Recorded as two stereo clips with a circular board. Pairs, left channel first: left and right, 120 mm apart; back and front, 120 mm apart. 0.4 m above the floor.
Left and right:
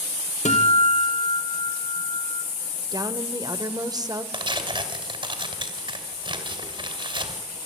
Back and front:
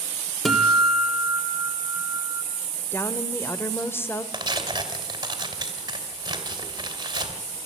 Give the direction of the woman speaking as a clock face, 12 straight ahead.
4 o'clock.